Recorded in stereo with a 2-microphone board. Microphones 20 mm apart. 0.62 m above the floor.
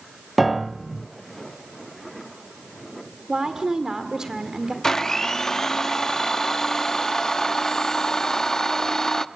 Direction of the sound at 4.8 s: 20° left (ahead or behind).